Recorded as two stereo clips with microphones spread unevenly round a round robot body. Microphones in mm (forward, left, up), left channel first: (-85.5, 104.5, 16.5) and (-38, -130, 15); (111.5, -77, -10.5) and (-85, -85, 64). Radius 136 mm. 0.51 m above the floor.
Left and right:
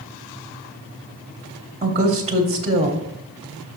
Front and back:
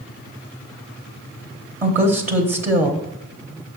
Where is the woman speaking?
115° right, 1.1 m.